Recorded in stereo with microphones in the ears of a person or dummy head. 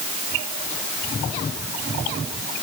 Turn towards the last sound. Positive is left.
No sound to turn to.